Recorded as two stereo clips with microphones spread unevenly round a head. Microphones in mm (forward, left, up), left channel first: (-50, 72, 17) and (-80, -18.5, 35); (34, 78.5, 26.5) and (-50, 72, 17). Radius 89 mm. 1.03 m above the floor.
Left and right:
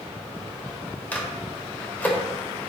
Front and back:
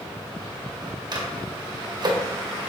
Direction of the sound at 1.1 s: 145° left.